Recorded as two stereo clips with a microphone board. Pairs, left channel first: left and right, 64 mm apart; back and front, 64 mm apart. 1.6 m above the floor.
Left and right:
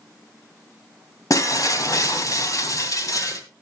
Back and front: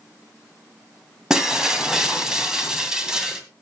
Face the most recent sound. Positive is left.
turn(degrees=80)